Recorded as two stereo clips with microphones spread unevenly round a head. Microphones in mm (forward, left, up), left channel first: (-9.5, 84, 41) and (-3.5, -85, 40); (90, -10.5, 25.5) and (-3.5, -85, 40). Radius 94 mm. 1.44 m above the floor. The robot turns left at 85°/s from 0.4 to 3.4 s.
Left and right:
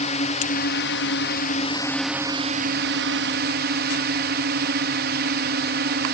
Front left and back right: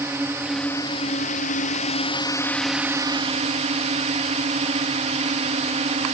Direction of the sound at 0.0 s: 140° left.